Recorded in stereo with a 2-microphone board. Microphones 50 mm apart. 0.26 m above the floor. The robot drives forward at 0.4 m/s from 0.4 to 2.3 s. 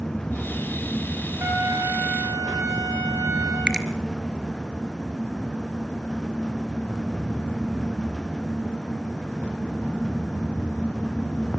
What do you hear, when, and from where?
1.4 s a trumpet: 55° right (ahead or behind), 8.5 m
3.7 s a finger snap: 15° right (ahead or behind), 3.5 m